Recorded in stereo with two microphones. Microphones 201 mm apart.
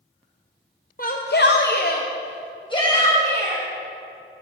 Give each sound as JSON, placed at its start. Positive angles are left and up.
{"t": 1.0, "sound": "a shout", "side_deg": 45, "distance_m": 0.7}